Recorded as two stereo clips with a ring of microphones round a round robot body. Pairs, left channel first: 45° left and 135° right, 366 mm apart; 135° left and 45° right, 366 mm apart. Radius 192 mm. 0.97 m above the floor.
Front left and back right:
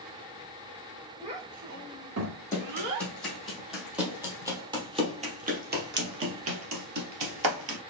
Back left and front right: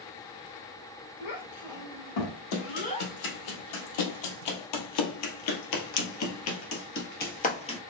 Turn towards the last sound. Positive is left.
turn(degrees=-150)